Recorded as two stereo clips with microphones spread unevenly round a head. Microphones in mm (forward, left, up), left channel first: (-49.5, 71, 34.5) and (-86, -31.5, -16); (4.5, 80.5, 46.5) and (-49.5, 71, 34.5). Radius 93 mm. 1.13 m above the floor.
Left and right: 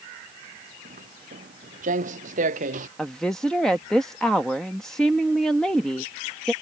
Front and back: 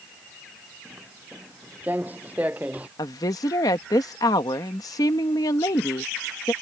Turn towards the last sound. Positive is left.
turn(degrees=-20)